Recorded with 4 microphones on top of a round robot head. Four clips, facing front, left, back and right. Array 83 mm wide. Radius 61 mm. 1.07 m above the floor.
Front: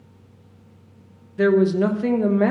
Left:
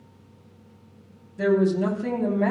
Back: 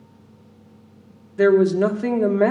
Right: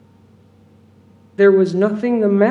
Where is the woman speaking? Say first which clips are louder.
Right 9 dB, back 2 dB; 100° right, 1.1 m.